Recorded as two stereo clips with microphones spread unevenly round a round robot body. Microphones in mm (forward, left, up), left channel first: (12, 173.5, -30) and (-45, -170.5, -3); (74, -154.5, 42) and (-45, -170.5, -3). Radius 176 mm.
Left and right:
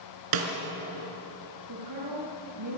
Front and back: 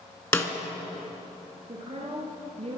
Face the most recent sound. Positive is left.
turn(degrees=-140)